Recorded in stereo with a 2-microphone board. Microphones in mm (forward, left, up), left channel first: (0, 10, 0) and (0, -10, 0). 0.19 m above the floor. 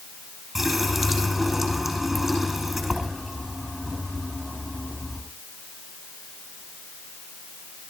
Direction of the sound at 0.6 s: 10° right (ahead or behind).